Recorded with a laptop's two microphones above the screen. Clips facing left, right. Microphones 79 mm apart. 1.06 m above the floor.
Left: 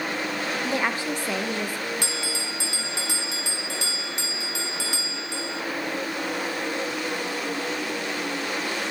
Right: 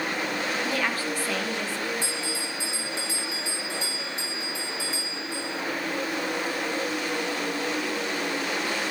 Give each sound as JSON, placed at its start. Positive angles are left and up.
{"t": 0.6, "sound": "a woman speaking", "side_deg": 20, "distance_m": 1.2}
{"t": 2.0, "sound": "a bell", "side_deg": 70, "distance_m": 1.6}